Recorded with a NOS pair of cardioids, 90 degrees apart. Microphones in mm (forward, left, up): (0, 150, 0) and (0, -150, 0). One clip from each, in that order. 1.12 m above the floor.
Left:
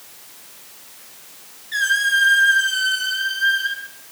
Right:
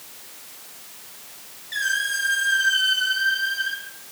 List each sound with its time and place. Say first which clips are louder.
1.7 s a squeak: left 6 dB; 45° left, 2 m